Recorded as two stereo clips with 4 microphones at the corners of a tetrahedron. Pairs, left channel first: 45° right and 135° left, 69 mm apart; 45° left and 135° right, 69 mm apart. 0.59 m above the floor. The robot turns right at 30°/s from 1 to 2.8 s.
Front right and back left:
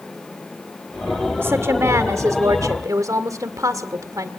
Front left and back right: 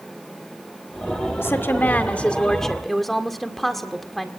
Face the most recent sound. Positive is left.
turn(degrees=130)